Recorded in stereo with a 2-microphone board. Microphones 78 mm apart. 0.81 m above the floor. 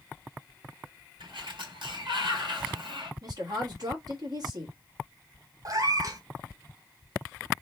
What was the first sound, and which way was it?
A sliding door, 85° right.